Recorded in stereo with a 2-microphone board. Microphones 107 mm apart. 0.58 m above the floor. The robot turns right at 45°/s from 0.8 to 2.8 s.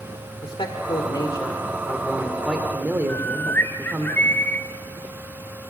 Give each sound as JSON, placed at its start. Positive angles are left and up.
{"t": 0.4, "sound": "a man speaking", "azimuth_deg": 115, "distance_m": 1.9}
{"t": 3.1, "sound": "a bird", "side_deg": 20, "distance_m": 1.7}